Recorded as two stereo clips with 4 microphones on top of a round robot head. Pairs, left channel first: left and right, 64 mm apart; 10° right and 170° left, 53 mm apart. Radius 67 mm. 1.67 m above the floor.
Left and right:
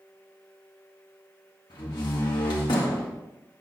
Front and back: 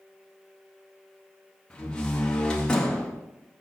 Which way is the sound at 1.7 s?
60° left.